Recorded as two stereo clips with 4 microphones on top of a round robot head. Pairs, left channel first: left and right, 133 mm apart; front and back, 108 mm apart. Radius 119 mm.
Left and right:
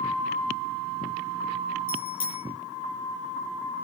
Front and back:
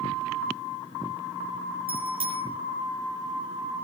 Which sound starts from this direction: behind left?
A bicycle bell, at 1.9 s.